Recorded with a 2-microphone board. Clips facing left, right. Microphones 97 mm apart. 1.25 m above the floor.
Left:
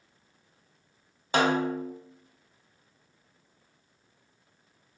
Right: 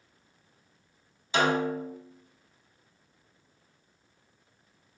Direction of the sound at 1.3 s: 50° left (ahead or behind).